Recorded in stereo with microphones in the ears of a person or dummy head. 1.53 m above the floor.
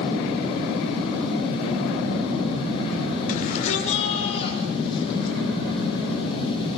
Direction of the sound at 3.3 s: 40° left (ahead or behind).